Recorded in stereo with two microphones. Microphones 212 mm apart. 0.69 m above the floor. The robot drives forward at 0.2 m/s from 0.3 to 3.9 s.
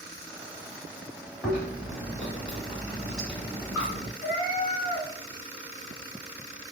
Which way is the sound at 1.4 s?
5° left (ahead or behind).